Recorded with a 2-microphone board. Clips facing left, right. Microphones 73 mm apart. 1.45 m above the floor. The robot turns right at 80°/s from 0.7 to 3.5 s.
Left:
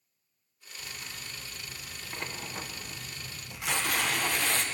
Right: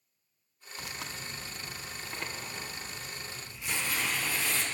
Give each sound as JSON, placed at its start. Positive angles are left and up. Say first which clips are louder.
{"t": 0.8, "sound": "tearing paper", "louder": "right 3 dB", "azimuth_deg": -110, "distance_m": 1.1}